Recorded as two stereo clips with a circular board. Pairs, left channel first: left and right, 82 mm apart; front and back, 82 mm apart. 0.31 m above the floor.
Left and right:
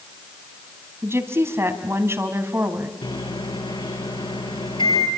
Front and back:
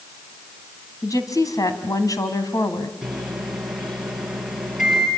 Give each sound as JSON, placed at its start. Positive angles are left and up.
{"t": 1.0, "sound": "a woman speaking", "azimuth_deg": -35, "distance_m": 2.5}
{"t": 3.0, "sound": "a microwave", "azimuth_deg": 95, "distance_m": 5.0}